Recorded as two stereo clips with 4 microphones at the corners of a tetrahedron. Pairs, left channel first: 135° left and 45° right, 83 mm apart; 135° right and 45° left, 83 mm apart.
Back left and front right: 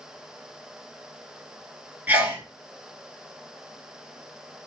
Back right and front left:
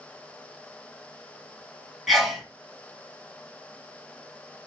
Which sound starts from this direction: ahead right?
A sneeze, at 2.1 s.